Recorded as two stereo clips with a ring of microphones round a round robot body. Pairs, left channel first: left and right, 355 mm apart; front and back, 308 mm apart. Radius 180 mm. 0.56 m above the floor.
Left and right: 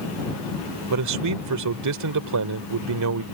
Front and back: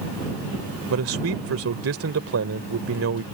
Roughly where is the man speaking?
Behind right.